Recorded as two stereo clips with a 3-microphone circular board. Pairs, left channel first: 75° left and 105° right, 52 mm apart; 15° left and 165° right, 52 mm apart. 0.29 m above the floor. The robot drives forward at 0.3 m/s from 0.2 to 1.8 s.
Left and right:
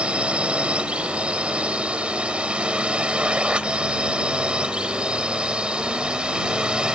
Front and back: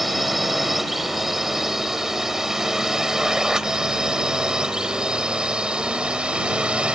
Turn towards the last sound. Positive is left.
turn(degrees=-140)